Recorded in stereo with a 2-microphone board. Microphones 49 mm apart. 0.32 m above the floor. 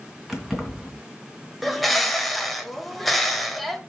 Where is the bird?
Centre (ahead or behind), 1.2 m.